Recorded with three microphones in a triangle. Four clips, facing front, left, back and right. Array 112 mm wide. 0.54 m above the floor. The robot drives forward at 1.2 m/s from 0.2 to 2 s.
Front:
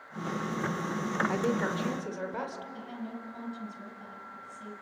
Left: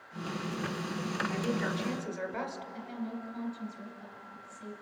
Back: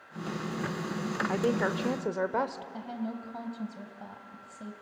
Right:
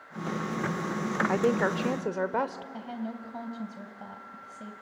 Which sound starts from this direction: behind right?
A woman speaking, at 2.7 s.